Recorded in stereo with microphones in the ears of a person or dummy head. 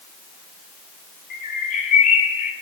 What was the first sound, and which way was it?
A bird, 45° left (ahead or behind).